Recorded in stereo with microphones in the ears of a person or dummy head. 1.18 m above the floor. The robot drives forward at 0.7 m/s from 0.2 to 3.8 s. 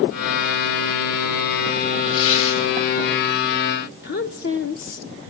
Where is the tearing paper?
75° left (ahead or behind), 9 m; by 2.6 s 80° left, 9 m.